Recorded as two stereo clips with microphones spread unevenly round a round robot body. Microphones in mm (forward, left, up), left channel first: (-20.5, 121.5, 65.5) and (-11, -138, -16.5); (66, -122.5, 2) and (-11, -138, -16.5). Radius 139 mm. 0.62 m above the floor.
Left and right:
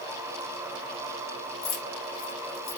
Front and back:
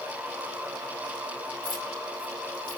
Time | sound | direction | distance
1.6 | keys jangling | 105° left | 1.7 m